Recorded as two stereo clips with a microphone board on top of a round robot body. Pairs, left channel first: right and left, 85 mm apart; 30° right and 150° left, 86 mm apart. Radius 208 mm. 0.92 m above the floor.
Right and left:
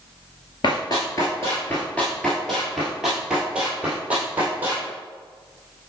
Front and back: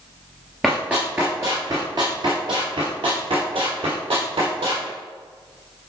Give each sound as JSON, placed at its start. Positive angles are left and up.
{"t": 0.6, "sound": "running footsteps", "azimuth_deg": -125, "distance_m": 1.2}